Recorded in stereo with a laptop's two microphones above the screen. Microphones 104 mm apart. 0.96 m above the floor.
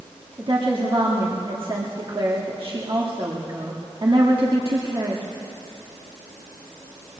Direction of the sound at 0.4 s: 60° right (ahead or behind).